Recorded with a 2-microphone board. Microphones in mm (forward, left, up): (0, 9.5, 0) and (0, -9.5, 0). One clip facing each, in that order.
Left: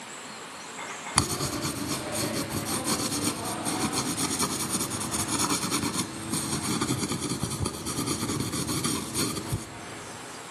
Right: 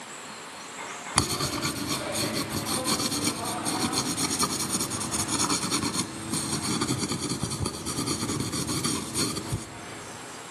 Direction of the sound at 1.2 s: 20° right (ahead or behind).